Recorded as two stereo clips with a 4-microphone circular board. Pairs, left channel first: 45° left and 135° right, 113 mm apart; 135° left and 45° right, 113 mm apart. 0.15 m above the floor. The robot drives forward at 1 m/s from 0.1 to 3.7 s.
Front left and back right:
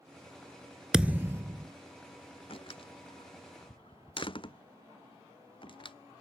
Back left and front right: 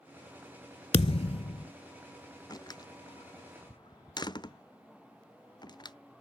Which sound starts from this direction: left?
A door slam, at 2.5 s.